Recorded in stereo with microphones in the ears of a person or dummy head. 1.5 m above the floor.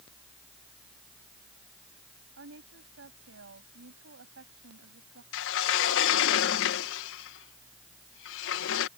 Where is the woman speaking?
75° right (ahead or behind).